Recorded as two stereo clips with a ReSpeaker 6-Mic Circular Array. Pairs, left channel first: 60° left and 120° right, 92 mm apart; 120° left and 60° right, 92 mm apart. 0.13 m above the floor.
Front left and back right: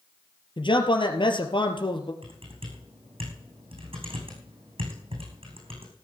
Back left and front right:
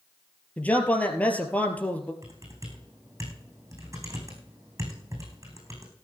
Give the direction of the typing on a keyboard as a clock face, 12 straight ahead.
4 o'clock.